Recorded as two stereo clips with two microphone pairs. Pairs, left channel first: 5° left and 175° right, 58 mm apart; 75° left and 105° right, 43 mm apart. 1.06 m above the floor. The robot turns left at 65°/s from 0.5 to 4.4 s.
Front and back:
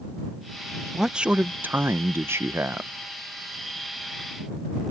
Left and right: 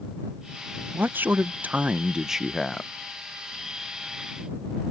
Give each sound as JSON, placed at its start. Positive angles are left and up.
{"t": 0.9, "sound": "a man speaking", "azimuth_deg": -90}